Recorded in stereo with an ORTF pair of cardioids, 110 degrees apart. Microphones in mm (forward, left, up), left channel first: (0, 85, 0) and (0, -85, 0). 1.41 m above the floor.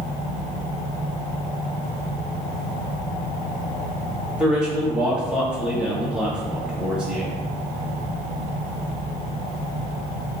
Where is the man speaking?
5° right, 1.3 m.